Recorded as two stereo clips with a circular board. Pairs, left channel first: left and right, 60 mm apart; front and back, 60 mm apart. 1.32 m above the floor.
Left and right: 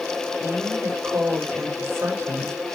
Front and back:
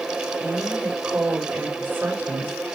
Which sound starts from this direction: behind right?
A woman speaking, at 0.4 s.